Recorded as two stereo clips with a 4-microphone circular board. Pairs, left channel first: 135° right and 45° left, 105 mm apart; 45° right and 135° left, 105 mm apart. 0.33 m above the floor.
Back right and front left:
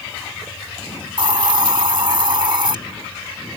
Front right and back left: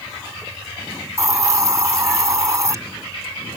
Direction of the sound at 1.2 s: 80° left.